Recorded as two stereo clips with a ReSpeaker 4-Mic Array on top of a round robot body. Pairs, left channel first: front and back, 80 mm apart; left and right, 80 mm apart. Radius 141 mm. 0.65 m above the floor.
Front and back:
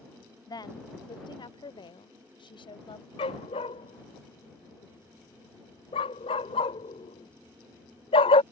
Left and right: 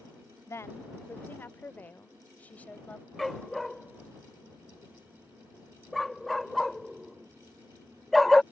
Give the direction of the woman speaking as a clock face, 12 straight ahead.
11 o'clock.